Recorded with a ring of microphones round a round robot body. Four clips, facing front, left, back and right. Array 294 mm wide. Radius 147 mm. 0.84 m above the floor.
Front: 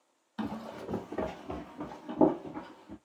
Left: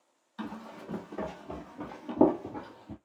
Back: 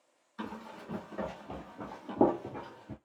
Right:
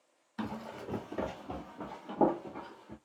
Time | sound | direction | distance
0.4 | running footsteps | 30° right | 1.3 m